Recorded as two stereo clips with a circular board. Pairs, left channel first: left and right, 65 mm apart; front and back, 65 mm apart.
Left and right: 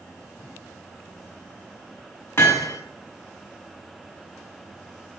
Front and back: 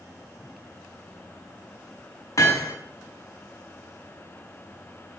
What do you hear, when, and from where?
2.4 s hammering: 40° left, 5.5 m